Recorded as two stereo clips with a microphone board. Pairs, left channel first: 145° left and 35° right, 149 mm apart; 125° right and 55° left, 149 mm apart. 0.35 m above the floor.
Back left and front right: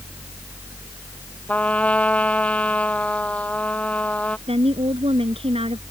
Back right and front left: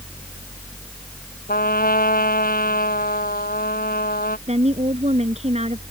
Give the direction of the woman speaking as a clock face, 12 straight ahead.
12 o'clock.